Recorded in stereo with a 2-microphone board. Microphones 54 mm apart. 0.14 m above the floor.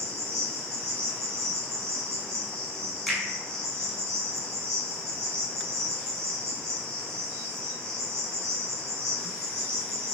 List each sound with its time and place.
0.0 s an insect: 65° right (ahead or behind), 0.8 m
3.1 s a finger snap: centre (ahead or behind), 0.8 m